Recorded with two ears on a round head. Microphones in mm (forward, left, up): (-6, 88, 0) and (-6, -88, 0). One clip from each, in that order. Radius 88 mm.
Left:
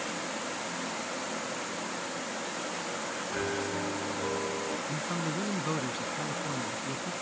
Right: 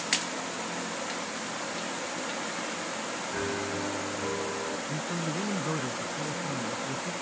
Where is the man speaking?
75° left (ahead or behind).